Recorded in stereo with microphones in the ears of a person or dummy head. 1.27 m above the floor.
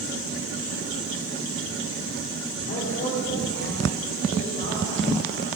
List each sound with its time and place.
2.7 s a woman speaking: 35° left (ahead or behind), 4.5 m; by 5.5 s 45° left (ahead or behind), 8.5 m